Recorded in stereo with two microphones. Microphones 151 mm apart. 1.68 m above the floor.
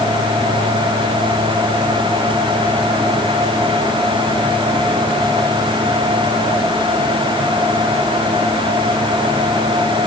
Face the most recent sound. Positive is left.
No sound to turn to.